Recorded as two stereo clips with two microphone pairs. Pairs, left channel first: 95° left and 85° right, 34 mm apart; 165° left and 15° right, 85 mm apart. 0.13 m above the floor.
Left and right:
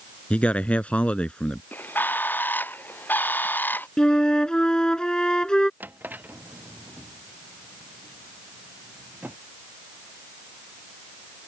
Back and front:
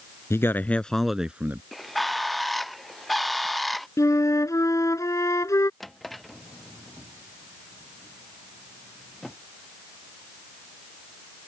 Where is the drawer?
105° right.